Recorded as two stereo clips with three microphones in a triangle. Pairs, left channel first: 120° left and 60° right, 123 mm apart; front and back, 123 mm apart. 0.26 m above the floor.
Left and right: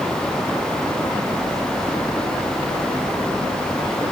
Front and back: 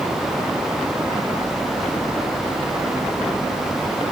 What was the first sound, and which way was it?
Only background noise.